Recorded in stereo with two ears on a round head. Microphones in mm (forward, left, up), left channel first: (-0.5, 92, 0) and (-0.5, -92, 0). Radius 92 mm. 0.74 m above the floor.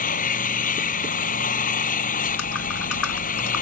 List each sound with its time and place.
0.0 s an engine running: 40° left (ahead or behind)
2.2 s typing on a keyboard: 80° left